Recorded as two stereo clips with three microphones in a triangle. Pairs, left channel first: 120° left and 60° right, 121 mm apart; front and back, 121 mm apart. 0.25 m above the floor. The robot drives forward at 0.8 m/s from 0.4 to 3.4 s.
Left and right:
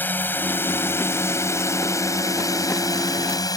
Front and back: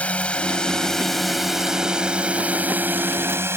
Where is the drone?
65° left; by 3.6 s 130° left.